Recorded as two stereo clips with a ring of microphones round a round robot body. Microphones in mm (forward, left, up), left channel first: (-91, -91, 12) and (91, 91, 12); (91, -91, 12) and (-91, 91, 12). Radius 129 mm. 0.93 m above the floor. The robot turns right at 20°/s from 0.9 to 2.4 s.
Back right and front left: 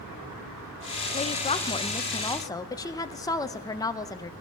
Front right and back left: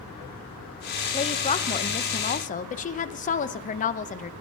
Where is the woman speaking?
95° right, 0.6 m; by 4.3 s 70° right, 0.6 m.